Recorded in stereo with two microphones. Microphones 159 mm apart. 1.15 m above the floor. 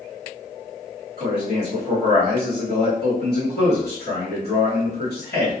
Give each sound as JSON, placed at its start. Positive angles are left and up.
{"t": 1.2, "sound": "a man speaking", "side_deg": 85, "distance_m": 1.5}